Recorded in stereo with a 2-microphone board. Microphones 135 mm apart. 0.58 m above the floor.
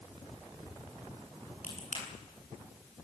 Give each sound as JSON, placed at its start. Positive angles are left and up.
{"t": 1.6, "sound": "a crack", "side_deg": 70, "distance_m": 8.0}